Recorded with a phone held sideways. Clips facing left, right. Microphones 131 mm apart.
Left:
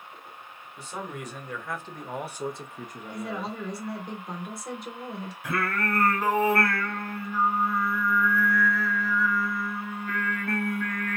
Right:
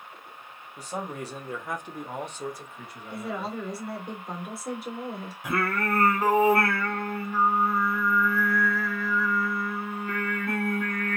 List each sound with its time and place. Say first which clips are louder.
0.8 s a man speaking: right 3 dB; 40° right (ahead or behind), 1.1 m; by 3.6 s 70° left (ahead or behind), 0.8 m
3.1 s a woman speaking: right 1 dB; 5° right (ahead or behind), 1.0 m
5.4 s singing: right 2 dB; 20° right (ahead or behind), 1.2 m